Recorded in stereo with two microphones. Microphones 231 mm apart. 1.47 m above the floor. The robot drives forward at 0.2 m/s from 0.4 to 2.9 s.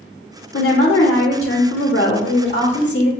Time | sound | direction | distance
0.5 | a woman speaking | 65° left (ahead or behind) | 0.6 m